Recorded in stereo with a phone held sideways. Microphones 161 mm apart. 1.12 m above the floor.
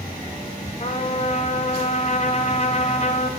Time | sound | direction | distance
0.8 | a trumpet | 40° left (ahead or behind) | 0.6 m